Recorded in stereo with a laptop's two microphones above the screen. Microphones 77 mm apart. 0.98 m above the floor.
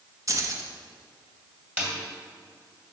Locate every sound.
0.3 s keys jangling: 40° right (ahead or behind), 0.9 m
1.8 s a snare drum: 20° right (ahead or behind), 2 m